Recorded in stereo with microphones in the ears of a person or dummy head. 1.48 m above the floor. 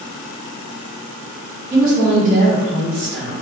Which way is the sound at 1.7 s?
20° right (ahead or behind).